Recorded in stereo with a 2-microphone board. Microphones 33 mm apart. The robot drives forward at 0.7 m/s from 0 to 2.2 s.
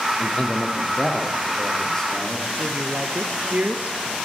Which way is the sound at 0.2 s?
30° left (ahead or behind).